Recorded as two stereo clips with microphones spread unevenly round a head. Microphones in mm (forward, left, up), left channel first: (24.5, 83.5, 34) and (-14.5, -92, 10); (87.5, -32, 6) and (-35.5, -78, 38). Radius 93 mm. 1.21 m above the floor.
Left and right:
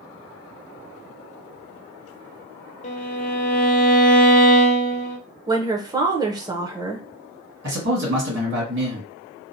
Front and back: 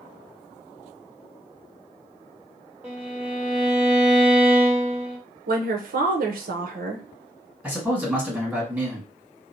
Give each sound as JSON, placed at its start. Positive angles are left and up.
{"t": 2.8, "sound": "a violin", "azimuth_deg": 125, "distance_m": 0.5}
{"t": 5.5, "sound": "a woman speaking", "azimuth_deg": -165, "distance_m": 0.7}
{"t": 7.6, "sound": "a man speaking", "azimuth_deg": -85, "distance_m": 1.7}